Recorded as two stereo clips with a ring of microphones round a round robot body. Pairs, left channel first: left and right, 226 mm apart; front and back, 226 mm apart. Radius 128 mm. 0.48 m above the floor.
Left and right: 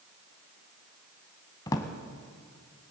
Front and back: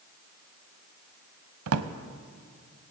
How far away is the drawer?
About 0.7 m.